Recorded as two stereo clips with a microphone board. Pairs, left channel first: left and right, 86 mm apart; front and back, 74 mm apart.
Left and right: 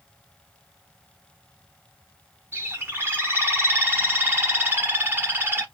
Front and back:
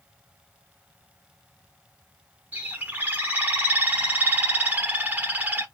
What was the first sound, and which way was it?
A bird, 130° right.